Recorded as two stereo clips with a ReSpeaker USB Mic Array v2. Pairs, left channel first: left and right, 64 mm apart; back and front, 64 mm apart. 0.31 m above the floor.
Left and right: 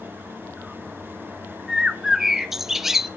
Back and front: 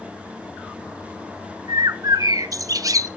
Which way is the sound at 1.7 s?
5° right.